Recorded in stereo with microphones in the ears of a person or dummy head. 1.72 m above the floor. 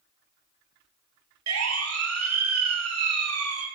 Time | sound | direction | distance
1.5 | a siren | 85° right | 6 m